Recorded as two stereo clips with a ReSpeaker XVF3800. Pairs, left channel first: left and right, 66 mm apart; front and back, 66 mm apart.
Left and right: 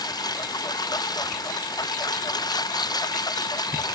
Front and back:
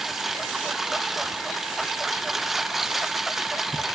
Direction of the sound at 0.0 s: 95° left.